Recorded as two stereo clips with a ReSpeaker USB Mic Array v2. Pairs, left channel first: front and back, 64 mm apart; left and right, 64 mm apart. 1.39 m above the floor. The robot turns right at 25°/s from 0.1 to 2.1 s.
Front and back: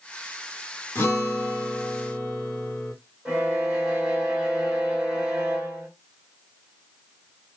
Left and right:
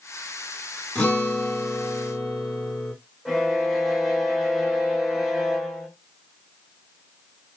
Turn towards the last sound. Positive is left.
turn(degrees=175)